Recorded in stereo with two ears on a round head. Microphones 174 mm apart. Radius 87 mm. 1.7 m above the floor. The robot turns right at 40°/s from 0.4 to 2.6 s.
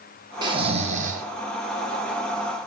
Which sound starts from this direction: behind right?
Snoring, at 0.4 s.